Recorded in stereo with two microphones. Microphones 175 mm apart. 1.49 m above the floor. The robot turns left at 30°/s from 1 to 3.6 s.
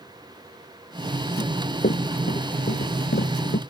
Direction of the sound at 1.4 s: 50° left (ahead or behind).